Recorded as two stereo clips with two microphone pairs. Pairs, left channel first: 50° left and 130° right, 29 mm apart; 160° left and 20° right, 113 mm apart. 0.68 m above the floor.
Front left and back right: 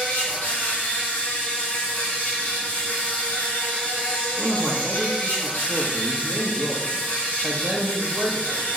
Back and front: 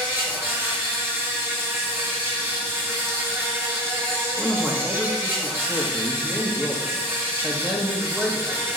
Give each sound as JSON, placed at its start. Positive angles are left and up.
{"t": 0.0, "sound": "an insect", "azimuth_deg": 45, "distance_m": 3.0}
{"t": 4.4, "sound": "a man speaking", "azimuth_deg": -95, "distance_m": 1.0}